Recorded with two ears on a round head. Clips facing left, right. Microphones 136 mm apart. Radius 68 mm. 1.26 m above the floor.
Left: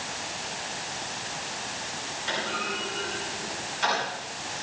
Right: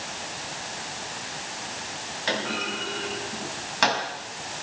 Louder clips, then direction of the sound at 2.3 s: Right 3 dB; 85° right.